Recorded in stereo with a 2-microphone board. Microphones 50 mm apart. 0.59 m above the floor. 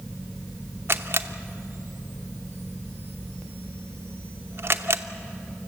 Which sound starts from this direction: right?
A camera shutter, at 0.9 s.